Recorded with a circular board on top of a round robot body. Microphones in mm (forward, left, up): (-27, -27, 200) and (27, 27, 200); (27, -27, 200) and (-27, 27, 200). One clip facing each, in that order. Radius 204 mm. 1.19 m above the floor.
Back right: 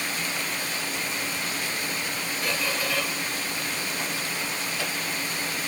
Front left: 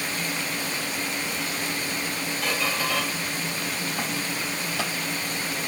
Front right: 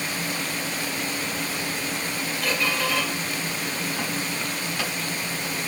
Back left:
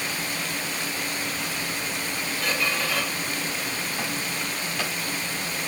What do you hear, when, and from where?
2.4 s a squeak: 40° left, 2.5 m